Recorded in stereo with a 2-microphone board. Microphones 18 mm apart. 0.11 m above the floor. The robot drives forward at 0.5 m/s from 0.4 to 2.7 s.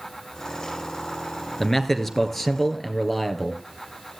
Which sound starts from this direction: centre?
A man speaking, at 1.6 s.